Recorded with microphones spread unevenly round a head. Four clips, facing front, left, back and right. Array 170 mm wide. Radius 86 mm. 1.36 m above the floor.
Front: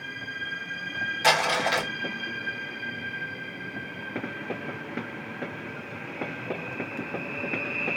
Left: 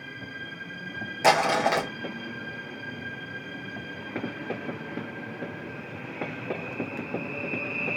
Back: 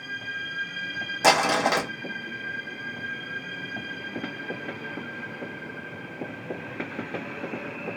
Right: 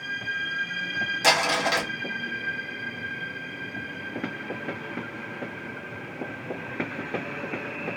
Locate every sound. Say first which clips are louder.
1.2 s crumpling: left 3 dB, back 3 dB; 165° left, 0.7 m